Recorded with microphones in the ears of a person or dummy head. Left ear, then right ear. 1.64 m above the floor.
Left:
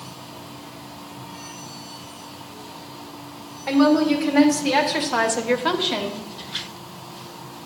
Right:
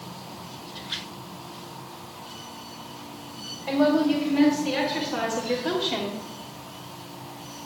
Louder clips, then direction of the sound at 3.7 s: Left 4 dB; 50° left (ahead or behind).